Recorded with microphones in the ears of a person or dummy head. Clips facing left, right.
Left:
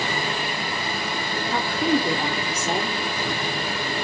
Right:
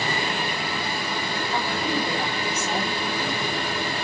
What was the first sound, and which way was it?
A woman speaking, 40° left (ahead or behind).